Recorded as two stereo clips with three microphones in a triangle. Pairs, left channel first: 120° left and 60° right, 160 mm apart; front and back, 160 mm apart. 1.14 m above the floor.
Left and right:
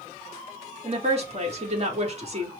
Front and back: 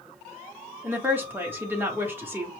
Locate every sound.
0.8 s a woman speaking: 105° right, 1.4 m